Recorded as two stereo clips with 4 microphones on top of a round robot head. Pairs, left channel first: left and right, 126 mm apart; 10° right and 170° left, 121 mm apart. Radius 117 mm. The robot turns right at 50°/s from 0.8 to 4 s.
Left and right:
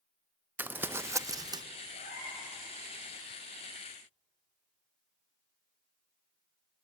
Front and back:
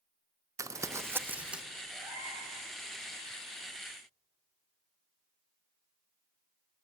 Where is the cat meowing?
95° left, 4 m; by 2.5 s 125° left, 4 m.